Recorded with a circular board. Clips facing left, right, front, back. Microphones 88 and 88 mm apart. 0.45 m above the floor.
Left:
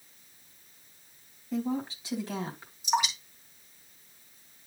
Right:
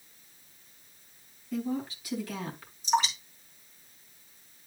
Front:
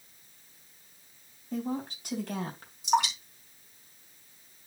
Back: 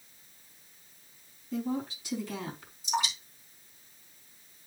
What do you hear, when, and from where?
1.5 s a woman speaking: 30° left, 3.5 m; by 2.7 s 25° left, 3 m
2.8 s dripping: 15° left, 3 m